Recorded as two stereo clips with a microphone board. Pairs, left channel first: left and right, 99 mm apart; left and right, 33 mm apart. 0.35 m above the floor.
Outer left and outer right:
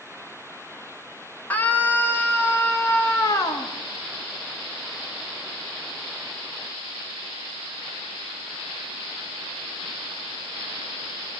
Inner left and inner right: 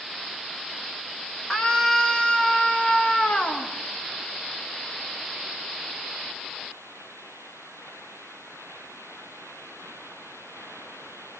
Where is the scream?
15° left (ahead or behind), 5.5 m; by 3.7 s 35° left (ahead or behind), 5.5 m.